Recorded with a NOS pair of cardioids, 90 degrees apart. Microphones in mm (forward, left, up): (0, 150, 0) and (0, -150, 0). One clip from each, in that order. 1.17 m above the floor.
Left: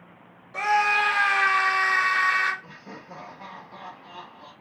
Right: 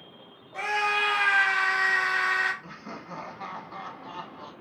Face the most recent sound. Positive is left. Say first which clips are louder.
# right 2 dB
turn(degrees=-30)